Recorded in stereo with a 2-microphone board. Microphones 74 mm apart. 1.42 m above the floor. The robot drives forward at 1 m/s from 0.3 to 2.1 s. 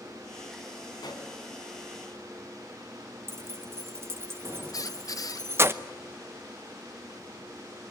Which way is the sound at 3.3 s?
35° right (ahead or behind).